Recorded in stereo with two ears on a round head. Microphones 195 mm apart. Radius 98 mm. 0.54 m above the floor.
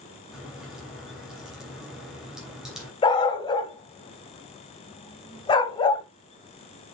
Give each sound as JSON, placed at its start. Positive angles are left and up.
{"t": 0.3, "sound": "a crack", "side_deg": -5, "distance_m": 3.0}
{"t": 3.0, "sound": "a dog barking", "side_deg": 20, "distance_m": 1.2}